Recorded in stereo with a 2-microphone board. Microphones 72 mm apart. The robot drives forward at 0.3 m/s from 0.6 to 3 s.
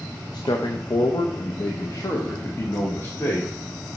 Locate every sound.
0.3 s a man speaking: 70° left (ahead or behind), 0.6 m; by 3.5 s 35° left (ahead or behind), 0.9 m